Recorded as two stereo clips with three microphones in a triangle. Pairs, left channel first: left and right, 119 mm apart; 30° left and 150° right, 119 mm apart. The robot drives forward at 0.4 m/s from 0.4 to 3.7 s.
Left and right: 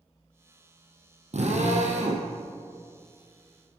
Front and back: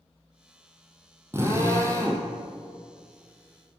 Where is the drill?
80° right, 3 m; by 2.3 s 90° right, 3 m.